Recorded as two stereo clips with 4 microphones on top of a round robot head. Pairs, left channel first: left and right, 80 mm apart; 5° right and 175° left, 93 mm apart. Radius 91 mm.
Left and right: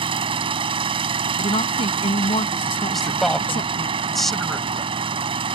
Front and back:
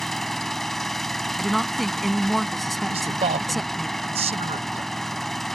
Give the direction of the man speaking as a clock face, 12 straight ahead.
6 o'clock.